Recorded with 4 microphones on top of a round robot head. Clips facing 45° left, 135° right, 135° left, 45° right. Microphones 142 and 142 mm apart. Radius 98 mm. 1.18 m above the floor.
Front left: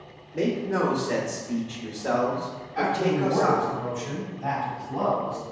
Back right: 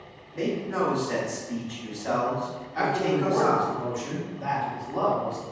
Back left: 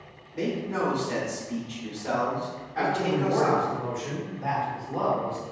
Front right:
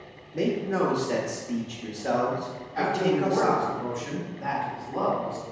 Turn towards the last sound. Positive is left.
turn(degrees=-105)